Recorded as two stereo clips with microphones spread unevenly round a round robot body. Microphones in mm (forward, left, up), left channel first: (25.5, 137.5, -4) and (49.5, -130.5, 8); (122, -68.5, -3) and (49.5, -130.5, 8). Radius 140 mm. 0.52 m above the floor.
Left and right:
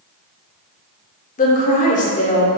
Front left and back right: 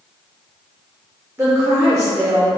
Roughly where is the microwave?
No microwave in this recording.